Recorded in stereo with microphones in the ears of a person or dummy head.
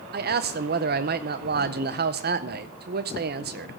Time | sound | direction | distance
0.1 | a man speaking | 50° right (ahead or behind) | 0.6 m